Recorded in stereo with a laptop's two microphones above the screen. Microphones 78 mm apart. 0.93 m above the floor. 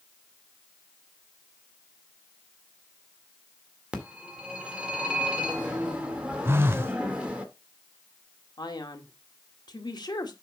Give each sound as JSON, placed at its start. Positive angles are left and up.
{"t": 3.9, "sound": "a phone ringing", "side_deg": -15, "distance_m": 2.0}
{"t": 6.5, "sound": "a phone buzzing", "side_deg": -30, "distance_m": 0.7}
{"t": 8.6, "sound": "a man speaking", "side_deg": 65, "distance_m": 1.9}